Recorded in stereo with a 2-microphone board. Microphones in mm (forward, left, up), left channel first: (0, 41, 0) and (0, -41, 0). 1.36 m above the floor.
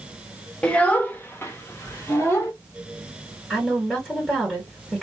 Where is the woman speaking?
10° right (ahead or behind), 1.6 m.